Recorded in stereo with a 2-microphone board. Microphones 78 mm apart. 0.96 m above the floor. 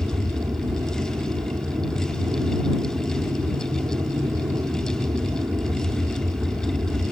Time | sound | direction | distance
0.0 | an aircraft | 60° right (ahead or behind) | ?